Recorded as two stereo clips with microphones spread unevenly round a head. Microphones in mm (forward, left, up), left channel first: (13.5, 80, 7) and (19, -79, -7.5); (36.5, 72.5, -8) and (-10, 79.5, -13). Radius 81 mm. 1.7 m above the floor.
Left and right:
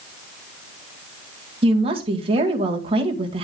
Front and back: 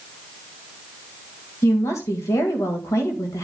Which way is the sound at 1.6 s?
30° right.